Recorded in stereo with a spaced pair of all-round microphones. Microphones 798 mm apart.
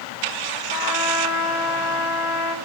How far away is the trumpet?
About 1.3 m.